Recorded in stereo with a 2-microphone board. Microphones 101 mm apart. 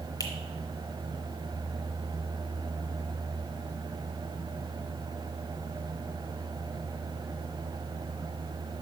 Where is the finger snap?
35° left (ahead or behind), 1.2 m.